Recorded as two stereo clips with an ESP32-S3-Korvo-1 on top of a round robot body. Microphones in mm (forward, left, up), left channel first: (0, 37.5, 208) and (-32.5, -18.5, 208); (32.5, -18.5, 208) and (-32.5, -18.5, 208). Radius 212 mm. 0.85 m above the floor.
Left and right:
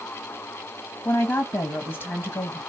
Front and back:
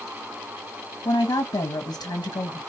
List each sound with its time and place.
1.1 s a woman speaking: straight ahead, 1.3 m